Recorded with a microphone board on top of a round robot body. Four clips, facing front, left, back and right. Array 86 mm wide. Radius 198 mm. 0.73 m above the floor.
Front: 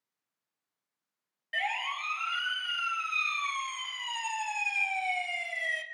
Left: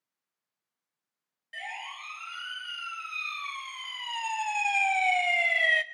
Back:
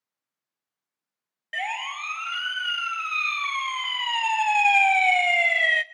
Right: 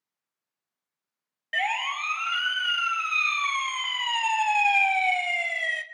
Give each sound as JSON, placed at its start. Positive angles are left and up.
{"t": 1.5, "sound": "a siren", "azimuth_deg": -115, "distance_m": 3.0}